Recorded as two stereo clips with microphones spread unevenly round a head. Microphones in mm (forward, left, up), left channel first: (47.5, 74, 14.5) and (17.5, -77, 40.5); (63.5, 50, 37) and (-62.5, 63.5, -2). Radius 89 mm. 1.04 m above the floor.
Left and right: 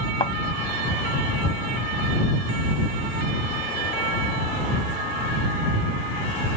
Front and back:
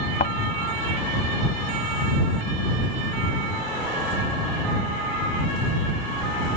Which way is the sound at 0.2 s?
20° left.